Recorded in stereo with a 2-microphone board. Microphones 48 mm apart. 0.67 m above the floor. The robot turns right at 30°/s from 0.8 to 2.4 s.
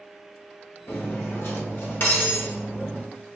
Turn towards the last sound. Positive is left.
turn(degrees=135)